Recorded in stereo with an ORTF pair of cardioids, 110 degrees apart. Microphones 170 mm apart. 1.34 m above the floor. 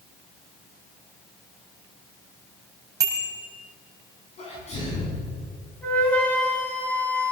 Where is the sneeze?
40° left, 10 m.